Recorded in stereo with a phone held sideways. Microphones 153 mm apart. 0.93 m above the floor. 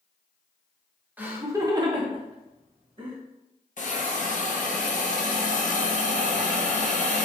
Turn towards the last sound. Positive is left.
turn(degrees=55)  # may be behind; listen again after turning